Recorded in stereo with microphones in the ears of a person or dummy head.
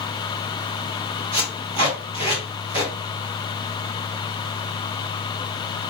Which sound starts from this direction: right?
Tape being pulled, at 1.3 s.